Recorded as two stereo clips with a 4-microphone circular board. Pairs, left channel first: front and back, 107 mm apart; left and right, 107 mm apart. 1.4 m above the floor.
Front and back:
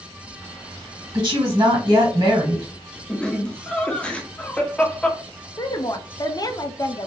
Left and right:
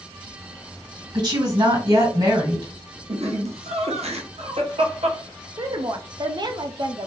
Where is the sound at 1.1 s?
135° right, 1.9 m.